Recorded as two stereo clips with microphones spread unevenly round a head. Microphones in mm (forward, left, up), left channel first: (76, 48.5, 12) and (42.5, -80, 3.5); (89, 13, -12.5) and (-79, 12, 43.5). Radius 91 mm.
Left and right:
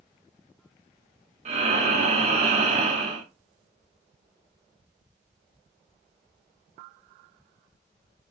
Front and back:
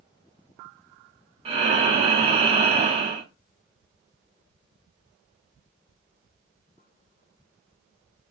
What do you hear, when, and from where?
1.4 s breathing: 145° right, 0.8 m